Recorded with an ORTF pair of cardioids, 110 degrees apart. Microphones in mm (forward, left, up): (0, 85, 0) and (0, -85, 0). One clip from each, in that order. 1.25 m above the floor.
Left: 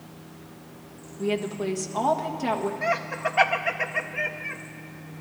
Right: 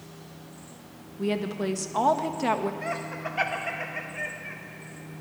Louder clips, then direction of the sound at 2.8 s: Left 6 dB; 30° left.